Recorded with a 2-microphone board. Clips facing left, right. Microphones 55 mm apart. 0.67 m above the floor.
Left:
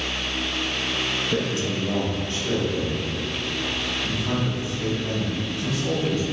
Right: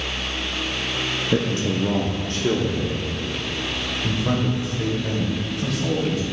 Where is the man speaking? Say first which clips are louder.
Right 6 dB; 25° right (ahead or behind), 0.6 m; by 6.2 s 80° right, 3 m.